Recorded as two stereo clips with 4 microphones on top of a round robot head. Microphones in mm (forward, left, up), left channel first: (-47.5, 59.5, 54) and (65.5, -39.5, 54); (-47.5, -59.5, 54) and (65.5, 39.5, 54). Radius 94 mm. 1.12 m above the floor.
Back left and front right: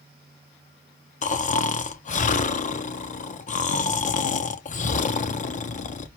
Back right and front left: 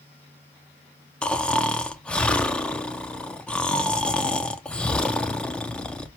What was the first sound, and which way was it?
Snoring, 140° left.